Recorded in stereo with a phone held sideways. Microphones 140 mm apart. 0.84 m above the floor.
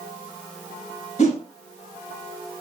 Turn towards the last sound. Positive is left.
turn(degrees=50)  # may be behind; listen again after turning